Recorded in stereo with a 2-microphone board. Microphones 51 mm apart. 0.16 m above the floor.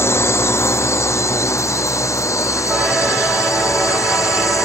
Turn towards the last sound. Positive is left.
turn(degrees=80)